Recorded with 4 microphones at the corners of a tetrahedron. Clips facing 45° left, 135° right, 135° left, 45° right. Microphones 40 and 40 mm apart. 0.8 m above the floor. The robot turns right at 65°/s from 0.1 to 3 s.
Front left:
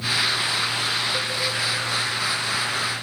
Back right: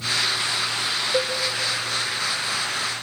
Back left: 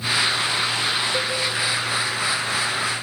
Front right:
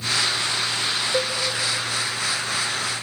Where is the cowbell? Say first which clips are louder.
Back right 3 dB, even; 105° right, 3 m; by 1.4 s 95° right, 3 m.